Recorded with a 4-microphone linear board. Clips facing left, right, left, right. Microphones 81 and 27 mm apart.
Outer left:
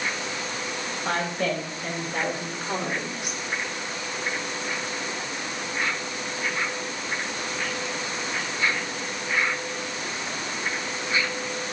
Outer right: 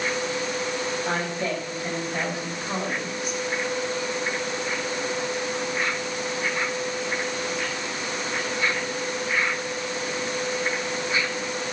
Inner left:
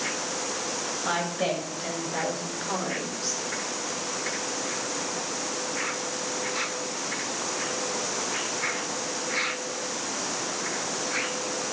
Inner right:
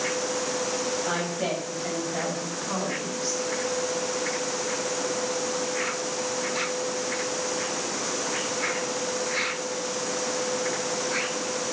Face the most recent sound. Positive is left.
turn(degrees=75)  # may be behind; listen again after turning